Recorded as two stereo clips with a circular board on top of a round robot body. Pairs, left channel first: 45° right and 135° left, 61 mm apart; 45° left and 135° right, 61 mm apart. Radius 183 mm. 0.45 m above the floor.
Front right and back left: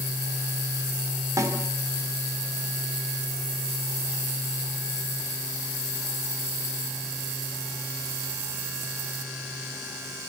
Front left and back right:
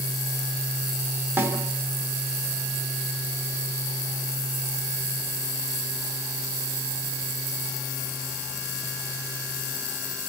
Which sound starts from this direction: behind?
A snare drum, at 1.4 s.